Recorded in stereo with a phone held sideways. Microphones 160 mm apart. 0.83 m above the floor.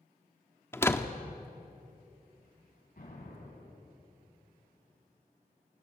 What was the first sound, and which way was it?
A door slam, 15° left (ahead or behind).